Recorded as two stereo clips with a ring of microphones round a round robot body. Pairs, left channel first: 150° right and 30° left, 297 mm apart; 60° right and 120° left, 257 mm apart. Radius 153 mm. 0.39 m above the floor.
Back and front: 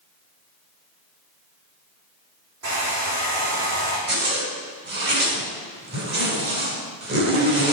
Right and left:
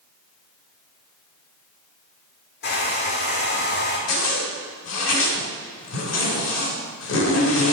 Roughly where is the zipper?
Ahead right.